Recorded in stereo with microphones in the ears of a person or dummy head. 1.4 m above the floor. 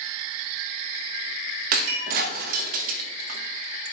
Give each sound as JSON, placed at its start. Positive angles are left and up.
{"t": 1.7, "sound": "breaking glass", "side_deg": -50, "distance_m": 0.8}